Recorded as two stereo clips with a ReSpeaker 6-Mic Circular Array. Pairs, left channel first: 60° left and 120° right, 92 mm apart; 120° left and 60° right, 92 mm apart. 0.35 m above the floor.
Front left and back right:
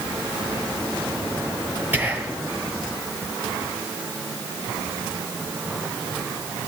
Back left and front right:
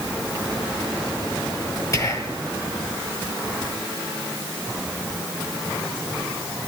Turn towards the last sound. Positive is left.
turn(degrees=170)